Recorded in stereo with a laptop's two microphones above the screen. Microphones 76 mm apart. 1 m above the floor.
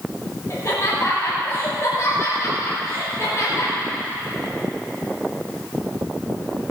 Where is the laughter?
45° left (ahead or behind), 5.5 m.